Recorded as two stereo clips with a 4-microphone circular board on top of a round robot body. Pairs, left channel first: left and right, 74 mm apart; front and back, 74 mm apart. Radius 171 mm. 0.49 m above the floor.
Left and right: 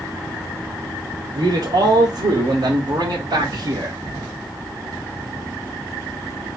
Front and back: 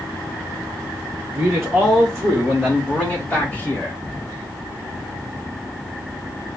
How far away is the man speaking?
About 2.5 m.